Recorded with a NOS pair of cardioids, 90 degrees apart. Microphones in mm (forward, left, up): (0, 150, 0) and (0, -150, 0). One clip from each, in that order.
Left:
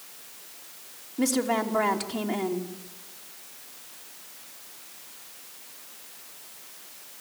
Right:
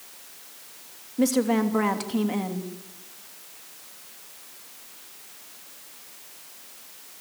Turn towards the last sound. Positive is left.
turn(degrees=-15)